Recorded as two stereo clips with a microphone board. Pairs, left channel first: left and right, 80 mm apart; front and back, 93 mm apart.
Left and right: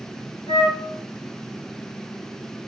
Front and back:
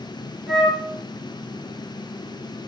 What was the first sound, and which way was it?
A flute, 85° left.